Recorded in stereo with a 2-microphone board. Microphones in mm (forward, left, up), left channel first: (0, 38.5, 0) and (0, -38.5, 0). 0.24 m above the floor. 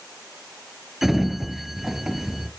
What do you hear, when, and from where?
1.0 s a sliding door: 5° right (ahead or behind), 0.6 m